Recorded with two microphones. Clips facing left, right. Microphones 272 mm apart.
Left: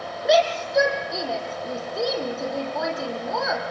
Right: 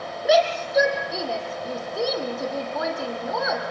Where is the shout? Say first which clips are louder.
Even; centre (ahead or behind), 4 m.